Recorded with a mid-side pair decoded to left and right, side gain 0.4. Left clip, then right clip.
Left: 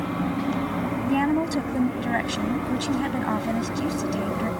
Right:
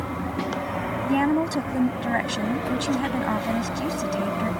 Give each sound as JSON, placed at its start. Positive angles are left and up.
{"t": 1.1, "sound": "a woman speaking", "azimuth_deg": -10}